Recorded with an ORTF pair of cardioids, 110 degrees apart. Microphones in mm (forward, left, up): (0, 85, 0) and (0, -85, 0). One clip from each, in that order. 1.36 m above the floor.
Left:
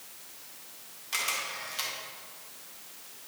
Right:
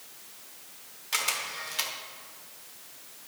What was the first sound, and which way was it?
A camera shutter, 25° right.